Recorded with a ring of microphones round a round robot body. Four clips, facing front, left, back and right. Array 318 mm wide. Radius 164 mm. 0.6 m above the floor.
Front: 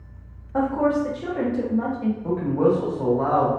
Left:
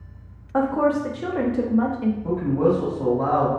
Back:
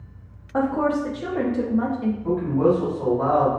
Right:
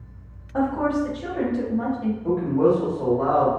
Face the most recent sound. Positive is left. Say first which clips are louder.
# right 2 dB, back 1 dB
turn(degrees=-15)